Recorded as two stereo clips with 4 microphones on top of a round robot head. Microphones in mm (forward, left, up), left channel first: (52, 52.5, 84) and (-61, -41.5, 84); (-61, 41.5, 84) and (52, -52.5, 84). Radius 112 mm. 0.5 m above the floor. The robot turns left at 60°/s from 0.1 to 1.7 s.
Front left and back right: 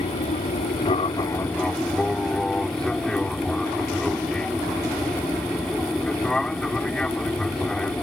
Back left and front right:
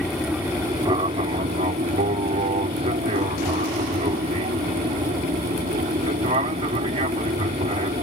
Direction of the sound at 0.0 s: 55° left.